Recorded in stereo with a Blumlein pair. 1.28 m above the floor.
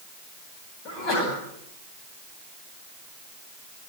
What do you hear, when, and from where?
0.8 s a sneeze: 35° left, 10 m